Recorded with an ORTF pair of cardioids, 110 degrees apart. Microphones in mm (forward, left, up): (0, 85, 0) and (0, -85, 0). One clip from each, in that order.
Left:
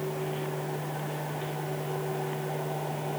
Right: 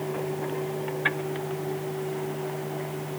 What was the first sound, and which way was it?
Only background noise.